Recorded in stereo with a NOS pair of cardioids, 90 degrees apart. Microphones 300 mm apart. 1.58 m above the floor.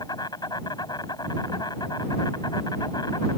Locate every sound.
0.0 s an insect: 15° left